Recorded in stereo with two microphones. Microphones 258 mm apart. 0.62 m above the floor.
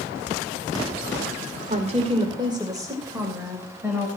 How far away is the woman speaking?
About 2.0 m.